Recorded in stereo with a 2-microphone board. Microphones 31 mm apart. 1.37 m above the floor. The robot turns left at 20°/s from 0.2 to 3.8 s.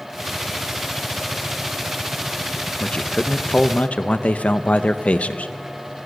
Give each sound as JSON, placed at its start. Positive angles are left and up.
{"t": 2.8, "sound": "a man speaking", "side_deg": 30, "distance_m": 0.9}